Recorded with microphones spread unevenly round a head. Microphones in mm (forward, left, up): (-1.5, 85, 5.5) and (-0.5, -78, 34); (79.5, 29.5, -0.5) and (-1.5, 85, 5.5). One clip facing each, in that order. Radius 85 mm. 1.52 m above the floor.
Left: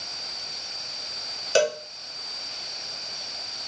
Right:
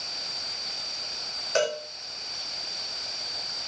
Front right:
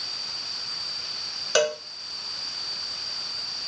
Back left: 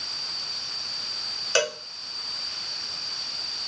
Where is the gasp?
No gasp in this recording.